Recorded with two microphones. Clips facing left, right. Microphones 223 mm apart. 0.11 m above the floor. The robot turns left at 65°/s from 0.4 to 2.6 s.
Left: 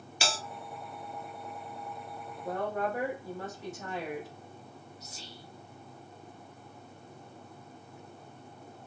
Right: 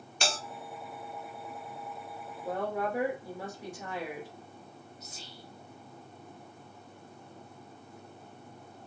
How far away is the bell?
About 0.7 m.